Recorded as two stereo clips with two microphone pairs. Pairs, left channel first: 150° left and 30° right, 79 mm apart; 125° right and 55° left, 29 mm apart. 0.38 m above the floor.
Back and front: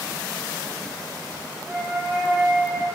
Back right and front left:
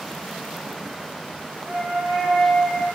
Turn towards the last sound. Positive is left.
turn(degrees=20)